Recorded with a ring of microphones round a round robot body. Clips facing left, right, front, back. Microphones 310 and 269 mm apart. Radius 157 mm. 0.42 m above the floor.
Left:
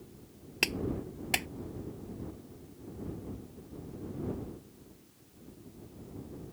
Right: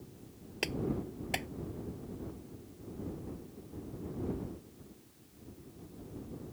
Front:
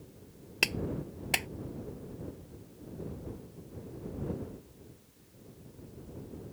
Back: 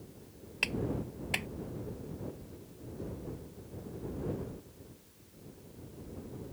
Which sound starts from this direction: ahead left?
A clap, at 0.6 s.